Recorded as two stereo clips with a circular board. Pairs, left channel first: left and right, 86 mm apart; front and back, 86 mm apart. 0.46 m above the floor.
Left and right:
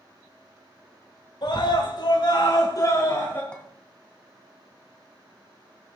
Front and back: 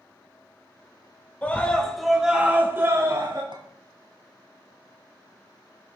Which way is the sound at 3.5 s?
165° left.